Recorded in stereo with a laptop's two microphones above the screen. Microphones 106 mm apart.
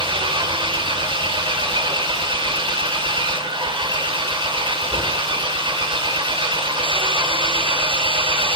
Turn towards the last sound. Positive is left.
turn(degrees=-50)  # may be behind; listen again after turning